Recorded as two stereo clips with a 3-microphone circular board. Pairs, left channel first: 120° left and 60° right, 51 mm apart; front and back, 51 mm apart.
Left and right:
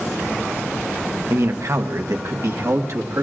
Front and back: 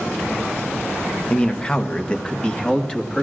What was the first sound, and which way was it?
A man speaking, 70° right.